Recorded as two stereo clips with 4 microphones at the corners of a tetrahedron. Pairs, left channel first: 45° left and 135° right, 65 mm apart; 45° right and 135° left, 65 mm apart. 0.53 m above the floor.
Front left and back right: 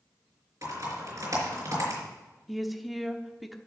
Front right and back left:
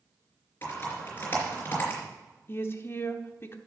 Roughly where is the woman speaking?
Ahead right.